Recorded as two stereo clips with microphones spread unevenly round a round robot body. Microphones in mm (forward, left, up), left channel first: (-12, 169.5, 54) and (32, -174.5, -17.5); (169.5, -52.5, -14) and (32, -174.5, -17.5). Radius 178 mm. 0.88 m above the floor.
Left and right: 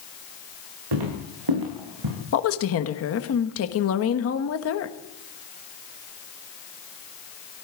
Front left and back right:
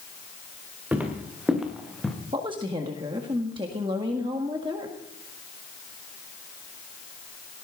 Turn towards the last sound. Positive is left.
turn(degrees=150)